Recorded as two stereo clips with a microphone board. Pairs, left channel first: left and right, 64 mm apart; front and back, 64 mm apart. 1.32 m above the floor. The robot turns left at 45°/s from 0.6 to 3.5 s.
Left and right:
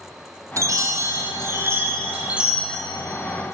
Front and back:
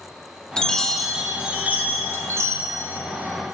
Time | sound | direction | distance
0.6 | a chime | 75° right | 0.8 m